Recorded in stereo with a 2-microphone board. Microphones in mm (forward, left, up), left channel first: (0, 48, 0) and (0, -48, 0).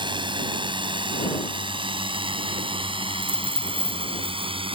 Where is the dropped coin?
70° left (ahead or behind).